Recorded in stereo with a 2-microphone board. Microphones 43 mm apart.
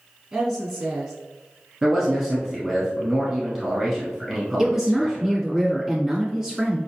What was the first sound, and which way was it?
A woman speaking, 5° right (ahead or behind).